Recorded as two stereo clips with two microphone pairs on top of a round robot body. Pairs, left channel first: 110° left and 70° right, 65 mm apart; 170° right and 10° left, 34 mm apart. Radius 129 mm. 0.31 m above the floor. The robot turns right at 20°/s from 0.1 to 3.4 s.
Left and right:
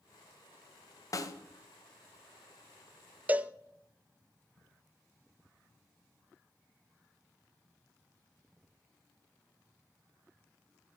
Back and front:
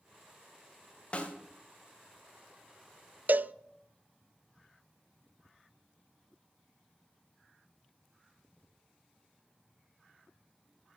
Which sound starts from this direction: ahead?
A cowbell, at 3.3 s.